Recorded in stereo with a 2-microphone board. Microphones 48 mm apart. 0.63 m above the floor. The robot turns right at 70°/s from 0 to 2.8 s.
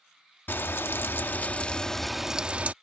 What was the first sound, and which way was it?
Frying, 65° left.